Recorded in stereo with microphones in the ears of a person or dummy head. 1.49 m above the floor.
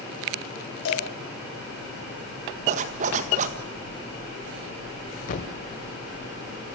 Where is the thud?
45° left (ahead or behind), 1.9 m.